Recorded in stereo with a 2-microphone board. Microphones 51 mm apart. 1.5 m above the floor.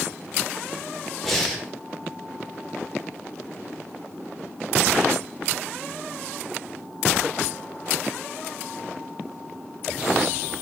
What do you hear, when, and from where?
1.2 s breathing: 5° left (ahead or behind), 0.8 m